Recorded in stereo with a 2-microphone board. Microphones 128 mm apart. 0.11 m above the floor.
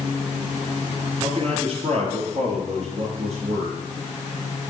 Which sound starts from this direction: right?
A man speaking, at 1.2 s.